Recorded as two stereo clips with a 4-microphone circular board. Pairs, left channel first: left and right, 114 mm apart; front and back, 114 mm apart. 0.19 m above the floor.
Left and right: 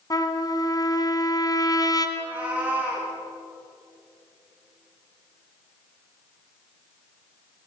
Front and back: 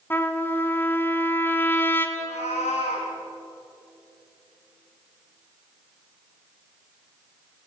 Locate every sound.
0.1 s a trumpet: 60° left, 2 m
2.2 s a cat meowing: 10° right, 6 m